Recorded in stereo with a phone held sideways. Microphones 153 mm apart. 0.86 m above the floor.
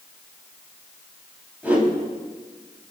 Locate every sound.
1.6 s a whoosh: 10° right (ahead or behind), 6.5 m